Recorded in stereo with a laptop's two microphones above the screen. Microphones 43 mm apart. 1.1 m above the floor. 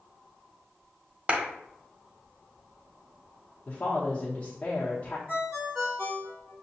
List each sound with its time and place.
1.3 s a clap: 30° right (ahead or behind), 0.7 m
3.7 s a woman speaking: 30° left (ahead or behind), 0.9 m
5.3 s a ringtone: 25° right (ahead or behind), 2 m